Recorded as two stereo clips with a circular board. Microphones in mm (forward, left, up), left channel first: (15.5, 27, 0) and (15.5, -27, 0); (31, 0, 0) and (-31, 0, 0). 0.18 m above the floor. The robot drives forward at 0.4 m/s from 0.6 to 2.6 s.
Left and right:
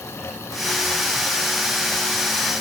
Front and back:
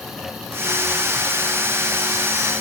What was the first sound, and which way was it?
Only background noise.